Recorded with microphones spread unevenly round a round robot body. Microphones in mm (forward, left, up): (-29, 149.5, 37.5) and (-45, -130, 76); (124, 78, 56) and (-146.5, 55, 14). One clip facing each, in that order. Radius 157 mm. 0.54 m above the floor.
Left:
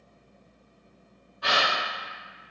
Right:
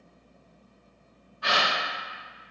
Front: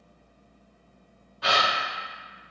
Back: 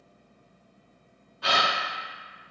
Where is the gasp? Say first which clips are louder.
Left 1 dB, front 1 dB; 35° left, 0.9 m.